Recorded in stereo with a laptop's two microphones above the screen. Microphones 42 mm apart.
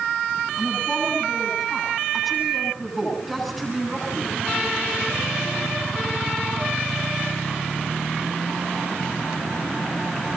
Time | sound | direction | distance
0.6 | a woman speaking | centre (ahead or behind) | 9 m